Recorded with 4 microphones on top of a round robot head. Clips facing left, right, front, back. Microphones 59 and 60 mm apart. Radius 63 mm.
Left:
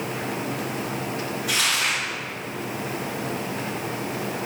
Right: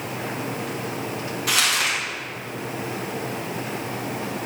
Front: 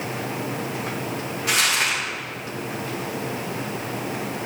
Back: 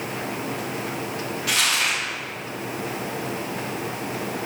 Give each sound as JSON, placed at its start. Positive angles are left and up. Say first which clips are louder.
{"t": 1.5, "sound": "crumpling", "louder": "right 2 dB, front 1 dB", "azimuth_deg": -70, "distance_m": 3.0}